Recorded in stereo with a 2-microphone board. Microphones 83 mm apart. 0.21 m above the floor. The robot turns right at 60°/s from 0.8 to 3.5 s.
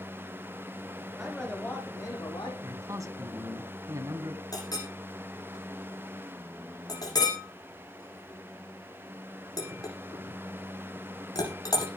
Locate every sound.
1.2 s a man speaking: 5° right, 8.5 m; by 2.5 s 75° left, 8.5 m
2.6 s a man speaking: 130° right, 2.0 m; by 4.4 s 75° right, 2.0 m
4.5 s a clink: 45° left (ahead or behind), 9 m